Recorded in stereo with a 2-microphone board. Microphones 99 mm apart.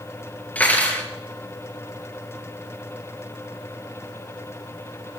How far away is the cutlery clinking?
About 3.5 m.